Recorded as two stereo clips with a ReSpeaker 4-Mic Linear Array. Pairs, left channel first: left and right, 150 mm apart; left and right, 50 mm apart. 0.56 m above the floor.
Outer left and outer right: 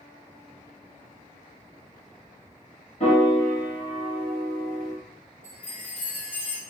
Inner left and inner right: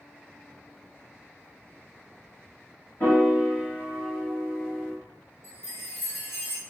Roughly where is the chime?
Left.